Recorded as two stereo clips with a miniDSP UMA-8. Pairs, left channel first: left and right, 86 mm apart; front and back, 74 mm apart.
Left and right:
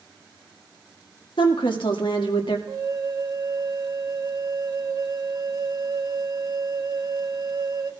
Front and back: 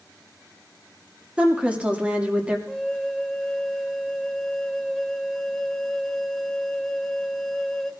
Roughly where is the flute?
Right.